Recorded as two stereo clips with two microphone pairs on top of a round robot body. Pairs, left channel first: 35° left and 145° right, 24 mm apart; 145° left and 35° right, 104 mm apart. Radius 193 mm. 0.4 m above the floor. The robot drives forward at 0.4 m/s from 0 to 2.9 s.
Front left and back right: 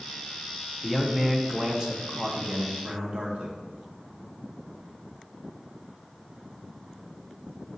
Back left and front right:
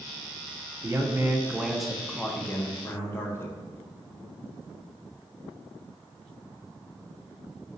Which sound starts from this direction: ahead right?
A man speaking, at 0.8 s.